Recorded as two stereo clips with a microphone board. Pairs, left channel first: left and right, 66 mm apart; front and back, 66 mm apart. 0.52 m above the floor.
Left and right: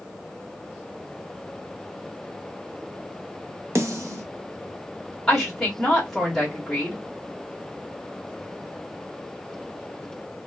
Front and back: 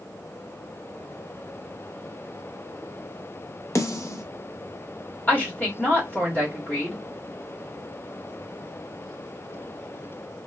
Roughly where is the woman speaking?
Ahead.